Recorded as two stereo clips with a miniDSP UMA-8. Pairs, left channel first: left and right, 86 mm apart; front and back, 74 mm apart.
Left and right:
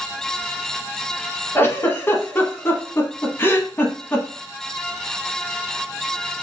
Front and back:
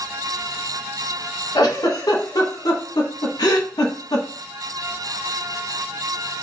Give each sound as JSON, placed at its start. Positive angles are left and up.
{"t": 1.6, "sound": "a giggle", "azimuth_deg": 30, "distance_m": 0.8}